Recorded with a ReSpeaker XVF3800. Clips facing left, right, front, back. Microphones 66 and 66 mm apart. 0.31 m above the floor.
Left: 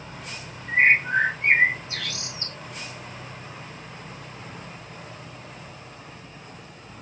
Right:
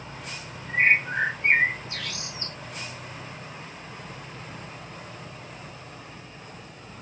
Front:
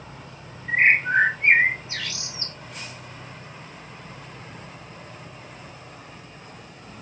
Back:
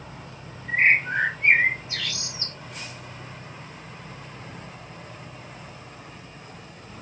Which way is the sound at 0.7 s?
70° left.